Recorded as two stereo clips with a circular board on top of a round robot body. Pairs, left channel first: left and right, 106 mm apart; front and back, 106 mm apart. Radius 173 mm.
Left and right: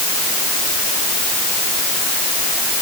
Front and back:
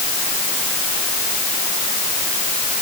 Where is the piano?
No piano in this recording.